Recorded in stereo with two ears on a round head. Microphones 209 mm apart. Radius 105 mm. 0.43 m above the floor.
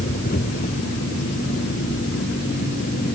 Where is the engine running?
35° left (ahead or behind).